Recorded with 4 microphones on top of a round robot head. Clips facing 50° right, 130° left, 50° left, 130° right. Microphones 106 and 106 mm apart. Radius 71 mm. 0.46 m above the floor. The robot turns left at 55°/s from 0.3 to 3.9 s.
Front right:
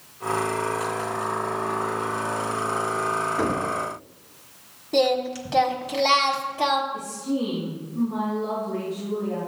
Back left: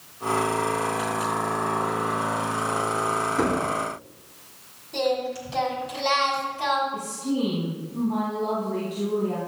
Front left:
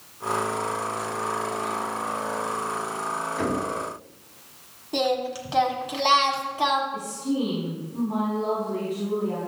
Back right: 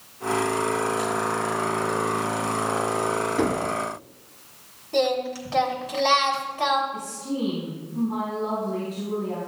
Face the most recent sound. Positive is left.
turn(degrees=125)